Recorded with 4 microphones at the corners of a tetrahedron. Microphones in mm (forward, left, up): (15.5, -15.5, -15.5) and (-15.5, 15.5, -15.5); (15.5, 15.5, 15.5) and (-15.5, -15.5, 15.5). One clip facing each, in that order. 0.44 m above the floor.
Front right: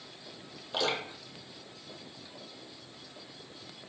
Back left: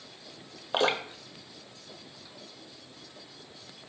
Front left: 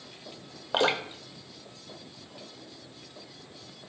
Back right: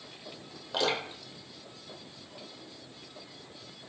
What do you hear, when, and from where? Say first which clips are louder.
0.7 s dripping: back left 5 dB, front left 4 dB; 90° left, 0.6 m